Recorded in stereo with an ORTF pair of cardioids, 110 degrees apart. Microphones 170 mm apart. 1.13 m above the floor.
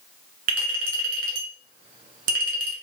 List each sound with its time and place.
0.5 s a clink: 55° right, 1.3 m